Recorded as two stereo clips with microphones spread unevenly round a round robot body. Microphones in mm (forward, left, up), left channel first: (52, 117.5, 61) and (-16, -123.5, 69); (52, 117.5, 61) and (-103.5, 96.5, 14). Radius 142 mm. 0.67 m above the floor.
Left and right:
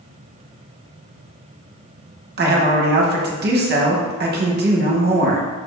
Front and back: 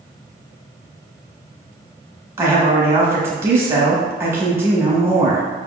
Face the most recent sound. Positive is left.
turn(degrees=-125)